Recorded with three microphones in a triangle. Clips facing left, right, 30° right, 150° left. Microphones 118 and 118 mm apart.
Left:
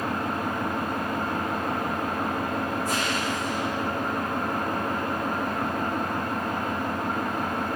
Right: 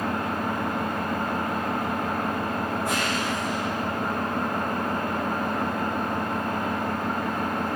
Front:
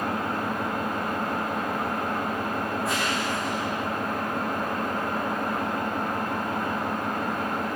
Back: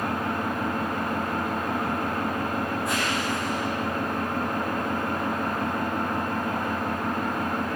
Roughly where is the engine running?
Behind right.